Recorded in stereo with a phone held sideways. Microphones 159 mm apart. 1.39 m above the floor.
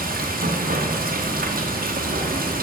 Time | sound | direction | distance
0.0 | running water | 75° right (ahead or behind) | 1.0 m